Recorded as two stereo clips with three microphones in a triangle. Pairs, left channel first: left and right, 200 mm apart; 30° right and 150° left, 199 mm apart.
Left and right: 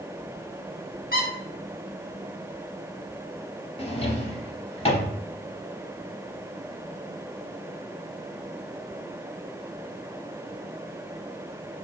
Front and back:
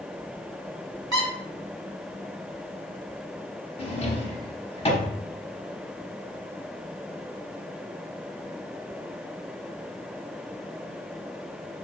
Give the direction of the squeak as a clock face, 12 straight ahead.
3 o'clock.